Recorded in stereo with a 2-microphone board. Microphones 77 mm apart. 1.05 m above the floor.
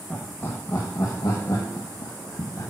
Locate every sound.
0.1 s laughter: 25° left (ahead or behind), 1.5 m; by 2.7 s 60° left (ahead or behind), 1.7 m